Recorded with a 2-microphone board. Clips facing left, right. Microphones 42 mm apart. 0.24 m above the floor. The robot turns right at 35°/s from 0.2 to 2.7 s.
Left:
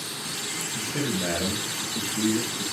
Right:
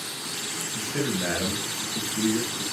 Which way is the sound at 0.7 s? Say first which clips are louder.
Right 1 dB; 80° right.